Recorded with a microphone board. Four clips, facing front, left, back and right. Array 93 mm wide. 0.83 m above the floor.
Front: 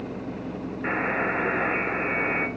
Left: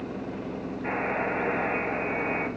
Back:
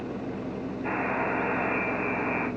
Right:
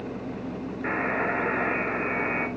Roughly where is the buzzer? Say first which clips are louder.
Right 2 dB, front 3 dB; ahead right.